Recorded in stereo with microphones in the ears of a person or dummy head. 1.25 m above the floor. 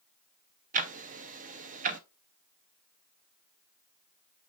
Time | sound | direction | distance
0.7 | ticking | 35° right (ahead or behind) | 0.7 m